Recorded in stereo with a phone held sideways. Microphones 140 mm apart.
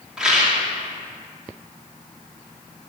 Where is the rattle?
5° right (ahead or behind), 2 m.